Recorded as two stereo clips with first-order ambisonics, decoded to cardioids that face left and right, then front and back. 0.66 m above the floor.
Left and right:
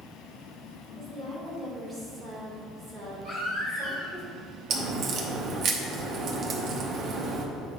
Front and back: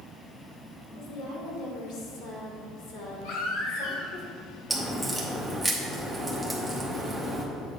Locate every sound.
0.9 s a woman speaking: 5° right, 2.5 m
3.2 s a baby crying: 5° left, 2 m
4.7 s a crack: 95° right, 1.0 m